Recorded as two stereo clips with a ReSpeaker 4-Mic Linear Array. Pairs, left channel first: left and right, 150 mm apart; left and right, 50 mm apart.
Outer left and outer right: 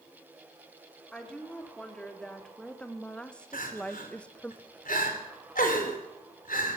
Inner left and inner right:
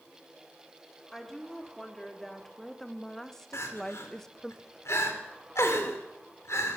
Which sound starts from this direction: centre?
A woman speaking, at 1.1 s.